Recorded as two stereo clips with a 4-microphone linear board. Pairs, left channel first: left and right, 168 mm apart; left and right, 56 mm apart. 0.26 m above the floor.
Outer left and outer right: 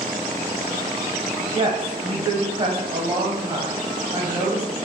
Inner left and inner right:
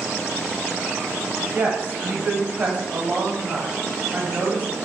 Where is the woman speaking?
35° right (ahead or behind), 1.0 m.